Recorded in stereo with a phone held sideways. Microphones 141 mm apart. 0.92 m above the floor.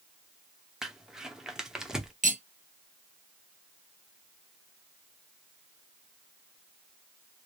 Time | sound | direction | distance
0.8 | crumpling | 5° right (ahead or behind) | 0.6 m
2.2 | cutlery clinking | 70° right (ahead or behind) | 0.7 m